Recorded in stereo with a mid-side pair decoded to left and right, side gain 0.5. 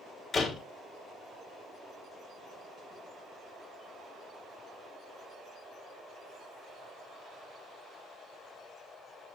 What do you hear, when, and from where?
0.3 s a door slam: 50° left, 3 m